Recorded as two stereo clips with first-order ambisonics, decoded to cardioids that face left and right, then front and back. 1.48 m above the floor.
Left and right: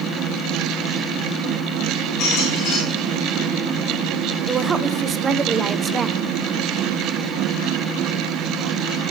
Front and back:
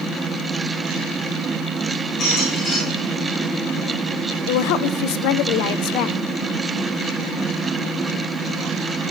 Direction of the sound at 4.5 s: 20° right.